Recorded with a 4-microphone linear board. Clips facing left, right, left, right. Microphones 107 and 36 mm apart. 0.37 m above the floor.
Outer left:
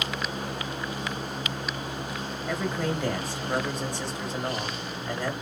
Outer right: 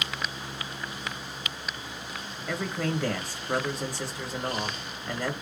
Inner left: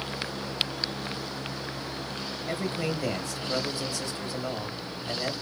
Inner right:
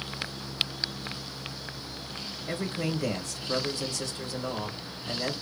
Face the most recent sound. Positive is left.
turn(degrees=0)  # may be behind; listen again after turning